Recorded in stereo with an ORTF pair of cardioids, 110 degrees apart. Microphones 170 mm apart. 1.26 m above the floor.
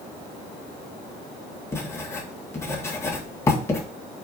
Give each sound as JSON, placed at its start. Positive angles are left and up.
{"t": 1.7, "sound": "writing", "azimuth_deg": 15, "distance_m": 2.0}